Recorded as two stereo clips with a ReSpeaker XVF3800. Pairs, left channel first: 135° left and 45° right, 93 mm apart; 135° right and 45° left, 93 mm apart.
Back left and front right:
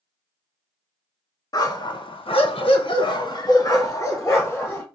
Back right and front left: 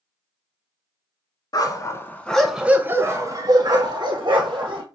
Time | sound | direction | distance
1.5 | a dog barking | straight behind | 0.7 m